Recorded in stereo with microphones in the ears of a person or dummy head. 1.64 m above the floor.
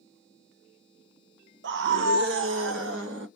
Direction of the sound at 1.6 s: 65° right (ahead or behind).